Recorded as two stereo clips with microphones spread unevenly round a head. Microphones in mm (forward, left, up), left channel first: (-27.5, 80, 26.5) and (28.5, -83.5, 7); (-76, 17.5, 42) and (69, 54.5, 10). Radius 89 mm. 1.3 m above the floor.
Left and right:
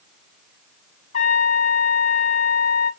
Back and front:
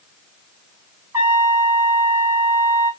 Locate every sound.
1.1 s a trumpet: 95° left, 1.4 m